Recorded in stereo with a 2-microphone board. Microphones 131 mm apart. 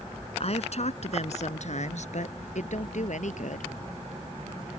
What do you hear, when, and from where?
0.4 s a woman speaking: 55° left (ahead or behind); by 3.8 s 70° left (ahead or behind)